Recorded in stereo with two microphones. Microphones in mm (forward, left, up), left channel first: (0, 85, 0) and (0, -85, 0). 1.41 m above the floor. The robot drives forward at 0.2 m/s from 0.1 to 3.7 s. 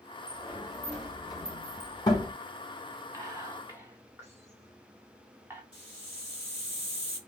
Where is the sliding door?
20° left (ahead or behind), 1.0 m; by 2.3 s 25° left (ahead or behind), 0.8 m.